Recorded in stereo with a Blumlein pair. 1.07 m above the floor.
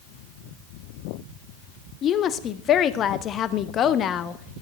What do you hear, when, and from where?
2.0 s a woman speaking: 30° left, 0.6 m